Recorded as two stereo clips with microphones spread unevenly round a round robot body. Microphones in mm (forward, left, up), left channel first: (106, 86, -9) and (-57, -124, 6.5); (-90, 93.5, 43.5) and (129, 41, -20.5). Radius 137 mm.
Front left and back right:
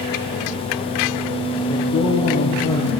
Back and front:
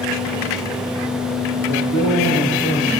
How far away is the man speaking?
About 7.5 m.